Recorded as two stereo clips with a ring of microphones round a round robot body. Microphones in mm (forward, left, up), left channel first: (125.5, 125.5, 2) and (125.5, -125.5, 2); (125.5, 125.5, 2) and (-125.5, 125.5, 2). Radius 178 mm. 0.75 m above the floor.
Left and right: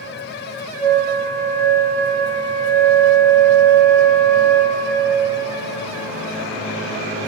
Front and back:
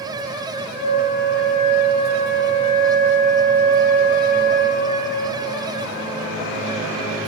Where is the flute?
5° left, 0.6 m.